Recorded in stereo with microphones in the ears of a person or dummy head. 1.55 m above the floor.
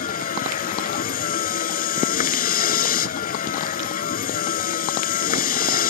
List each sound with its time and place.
0.0 s a vehicle: 55° left (ahead or behind)